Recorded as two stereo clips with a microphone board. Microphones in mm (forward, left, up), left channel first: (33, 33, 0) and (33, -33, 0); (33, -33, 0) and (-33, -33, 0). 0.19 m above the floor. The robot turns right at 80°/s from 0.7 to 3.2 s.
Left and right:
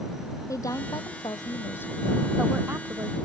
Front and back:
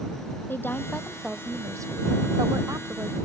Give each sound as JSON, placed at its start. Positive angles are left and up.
{"t": 0.5, "sound": "a woman speaking", "azimuth_deg": 55}